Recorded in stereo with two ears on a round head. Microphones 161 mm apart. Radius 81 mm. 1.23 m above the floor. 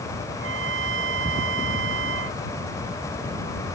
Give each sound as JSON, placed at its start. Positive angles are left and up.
{"t": 0.3, "sound": "a trumpet", "side_deg": -70}